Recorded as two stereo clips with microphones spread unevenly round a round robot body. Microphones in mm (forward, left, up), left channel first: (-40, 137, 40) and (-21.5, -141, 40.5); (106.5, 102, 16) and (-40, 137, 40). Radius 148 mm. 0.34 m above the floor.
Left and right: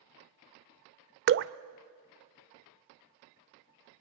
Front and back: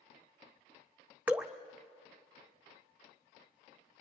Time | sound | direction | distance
1.3 | dripping | 110° right | 0.6 m